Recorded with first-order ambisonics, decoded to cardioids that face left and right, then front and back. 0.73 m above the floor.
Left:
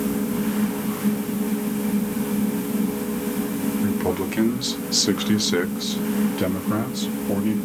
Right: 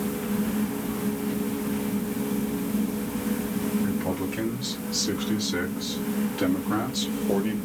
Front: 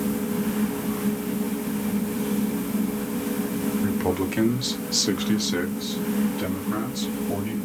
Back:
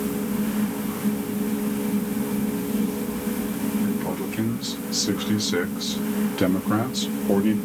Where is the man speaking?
50° left, 1.2 m; by 7.6 s 170° right, 1.1 m.